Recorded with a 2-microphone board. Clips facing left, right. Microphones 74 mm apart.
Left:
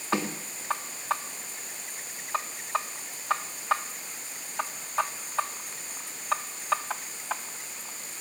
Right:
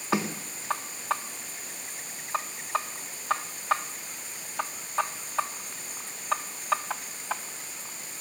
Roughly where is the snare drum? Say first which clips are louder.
Right 1 dB; centre.